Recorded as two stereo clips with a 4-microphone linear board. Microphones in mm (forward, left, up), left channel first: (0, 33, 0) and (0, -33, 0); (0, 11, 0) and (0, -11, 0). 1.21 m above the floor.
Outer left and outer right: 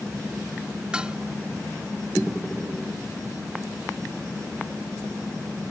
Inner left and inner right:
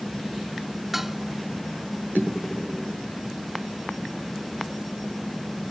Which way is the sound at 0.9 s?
15° right (ahead or behind).